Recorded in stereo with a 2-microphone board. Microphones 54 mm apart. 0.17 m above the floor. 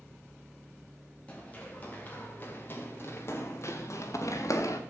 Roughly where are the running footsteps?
Left.